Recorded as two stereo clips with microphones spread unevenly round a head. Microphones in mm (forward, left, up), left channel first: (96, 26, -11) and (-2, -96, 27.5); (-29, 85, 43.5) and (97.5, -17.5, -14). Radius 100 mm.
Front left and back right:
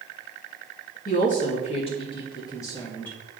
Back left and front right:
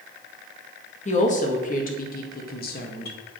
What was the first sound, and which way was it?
A woman speaking, 105° left.